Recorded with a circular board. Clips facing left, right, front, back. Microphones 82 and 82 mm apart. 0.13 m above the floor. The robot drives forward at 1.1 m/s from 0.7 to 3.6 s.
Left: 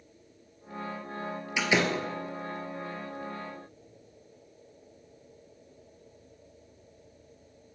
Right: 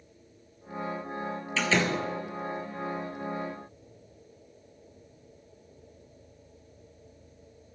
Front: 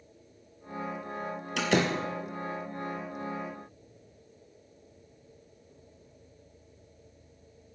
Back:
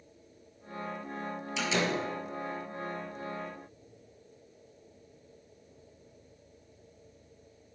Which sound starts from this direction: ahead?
A door slam, at 1.6 s.